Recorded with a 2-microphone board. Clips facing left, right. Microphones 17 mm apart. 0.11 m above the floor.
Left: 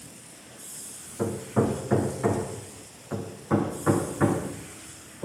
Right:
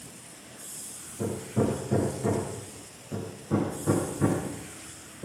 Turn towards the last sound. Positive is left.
turn(degrees=65)  # may be behind; listen again after turning